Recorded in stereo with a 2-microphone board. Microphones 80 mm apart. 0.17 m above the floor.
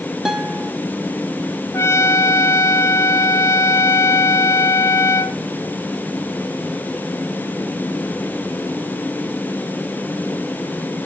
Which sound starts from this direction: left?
A trumpet, at 1.7 s.